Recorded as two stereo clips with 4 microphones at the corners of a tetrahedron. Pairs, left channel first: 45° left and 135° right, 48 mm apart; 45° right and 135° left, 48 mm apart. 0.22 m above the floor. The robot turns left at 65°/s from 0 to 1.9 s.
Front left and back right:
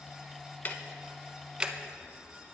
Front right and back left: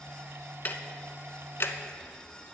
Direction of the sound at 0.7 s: Straight ahead.